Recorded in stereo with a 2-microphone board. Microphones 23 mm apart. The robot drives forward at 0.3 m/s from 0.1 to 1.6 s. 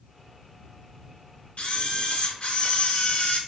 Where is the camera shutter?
65° left (ahead or behind), 0.6 m.